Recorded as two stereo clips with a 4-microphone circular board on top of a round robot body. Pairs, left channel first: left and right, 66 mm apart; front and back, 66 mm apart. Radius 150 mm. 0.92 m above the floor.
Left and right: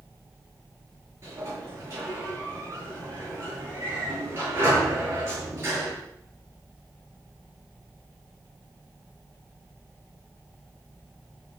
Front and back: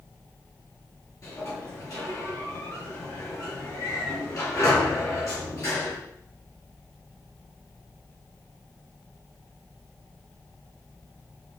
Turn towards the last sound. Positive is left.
turn(degrees=-40)